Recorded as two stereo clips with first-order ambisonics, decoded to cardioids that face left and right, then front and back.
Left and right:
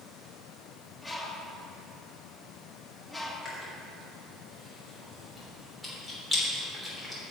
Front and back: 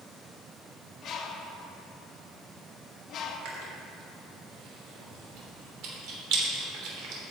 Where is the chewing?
Straight behind, 3 m.